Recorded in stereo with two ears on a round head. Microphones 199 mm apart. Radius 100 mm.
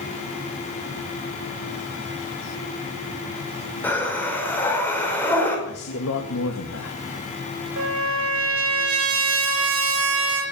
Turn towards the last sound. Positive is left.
turn(degrees=-75)  # may be behind; listen again after turning